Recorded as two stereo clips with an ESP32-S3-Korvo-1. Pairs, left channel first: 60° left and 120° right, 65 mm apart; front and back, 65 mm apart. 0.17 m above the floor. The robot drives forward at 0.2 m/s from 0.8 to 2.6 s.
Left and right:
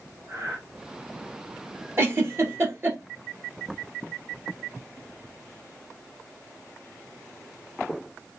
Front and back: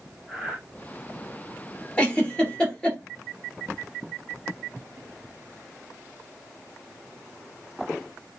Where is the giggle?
70° right, 1.9 m; by 3.0 s 75° right, 1.9 m.